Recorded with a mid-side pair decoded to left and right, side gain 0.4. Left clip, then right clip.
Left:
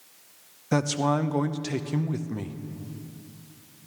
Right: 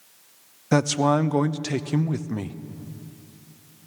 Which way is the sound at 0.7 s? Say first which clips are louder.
Right 4 dB; 35° right.